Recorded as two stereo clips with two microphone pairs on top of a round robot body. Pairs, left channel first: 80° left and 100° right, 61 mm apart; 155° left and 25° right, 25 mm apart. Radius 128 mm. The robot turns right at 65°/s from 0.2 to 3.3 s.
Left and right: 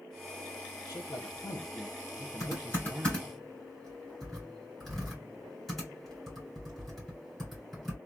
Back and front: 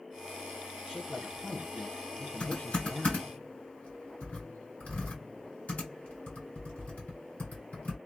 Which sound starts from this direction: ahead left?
A man speaking, at 0.9 s.